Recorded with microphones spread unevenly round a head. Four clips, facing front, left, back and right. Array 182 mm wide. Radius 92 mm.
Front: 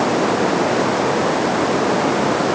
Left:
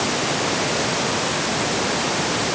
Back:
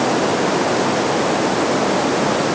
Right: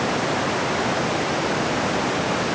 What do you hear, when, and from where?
Only background noise.